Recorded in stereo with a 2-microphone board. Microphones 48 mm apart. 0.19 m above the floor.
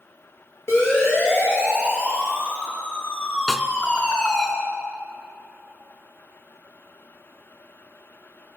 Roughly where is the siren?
Left.